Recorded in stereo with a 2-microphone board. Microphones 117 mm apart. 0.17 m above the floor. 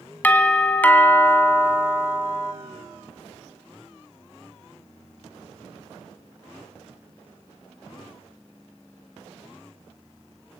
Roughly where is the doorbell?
Centre.